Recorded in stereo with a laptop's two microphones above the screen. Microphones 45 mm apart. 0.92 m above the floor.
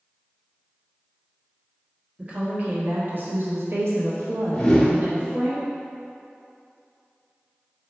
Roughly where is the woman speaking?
Right.